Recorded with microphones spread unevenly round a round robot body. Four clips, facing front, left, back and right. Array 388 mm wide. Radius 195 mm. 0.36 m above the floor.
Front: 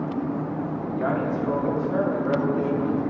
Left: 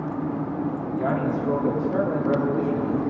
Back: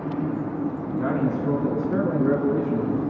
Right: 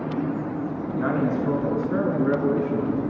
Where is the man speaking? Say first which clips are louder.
Right 2 dB, back 1 dB; 120° right, 4.5 m; by 3.0 s 150° right, 6.5 m.